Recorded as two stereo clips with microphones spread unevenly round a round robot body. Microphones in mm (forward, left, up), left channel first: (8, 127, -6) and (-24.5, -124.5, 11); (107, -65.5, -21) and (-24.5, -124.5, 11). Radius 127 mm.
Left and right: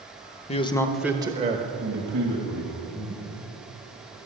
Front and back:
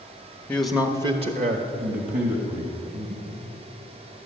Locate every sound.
0.5 s a man speaking: 60° left, 1.1 m; by 2.7 s 140° right, 2.5 m
2.9 s breathing: 175° left, 4.5 m